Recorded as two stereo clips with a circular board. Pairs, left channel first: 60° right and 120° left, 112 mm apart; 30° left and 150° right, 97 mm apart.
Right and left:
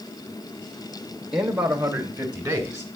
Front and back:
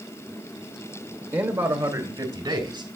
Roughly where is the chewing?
I don't hear chewing.